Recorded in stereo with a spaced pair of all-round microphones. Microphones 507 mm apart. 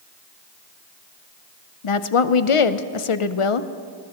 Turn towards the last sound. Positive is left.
turn(degrees=75)  # may be behind; listen again after turning